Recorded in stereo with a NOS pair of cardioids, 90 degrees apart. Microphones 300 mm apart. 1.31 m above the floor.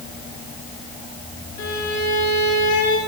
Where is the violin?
65° left, 6.5 m.